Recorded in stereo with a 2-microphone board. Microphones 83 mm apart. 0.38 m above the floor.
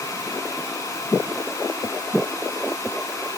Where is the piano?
I don't hear a piano.